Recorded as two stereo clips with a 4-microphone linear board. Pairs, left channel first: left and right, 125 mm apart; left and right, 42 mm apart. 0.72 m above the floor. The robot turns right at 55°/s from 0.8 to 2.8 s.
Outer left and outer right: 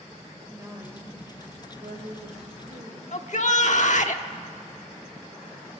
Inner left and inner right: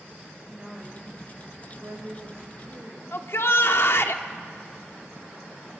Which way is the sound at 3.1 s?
65° left (ahead or behind).